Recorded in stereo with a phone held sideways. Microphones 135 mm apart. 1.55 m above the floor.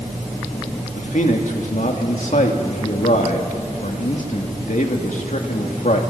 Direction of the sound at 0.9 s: 70° left (ahead or behind).